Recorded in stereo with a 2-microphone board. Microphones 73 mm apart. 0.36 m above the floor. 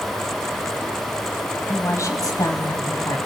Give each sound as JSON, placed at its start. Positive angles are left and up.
{"t": 1.7, "sound": "a woman speaking", "side_deg": 35, "distance_m": 2.5}